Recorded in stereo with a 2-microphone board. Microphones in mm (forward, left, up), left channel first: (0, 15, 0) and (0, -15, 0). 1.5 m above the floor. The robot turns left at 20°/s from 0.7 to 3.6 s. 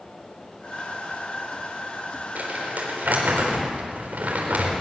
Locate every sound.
2.4 s crumpling: 70° right (ahead or behind), 4 m; by 4.7 s 80° right, 4 m